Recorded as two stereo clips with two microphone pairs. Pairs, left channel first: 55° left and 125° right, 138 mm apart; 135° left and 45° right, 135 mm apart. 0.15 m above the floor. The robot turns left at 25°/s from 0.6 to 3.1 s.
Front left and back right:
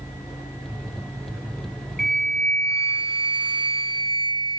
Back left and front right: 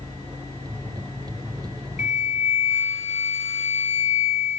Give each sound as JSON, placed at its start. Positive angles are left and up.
{"t": 2.0, "sound": "a flute", "azimuth_deg": 135, "distance_m": 1.4}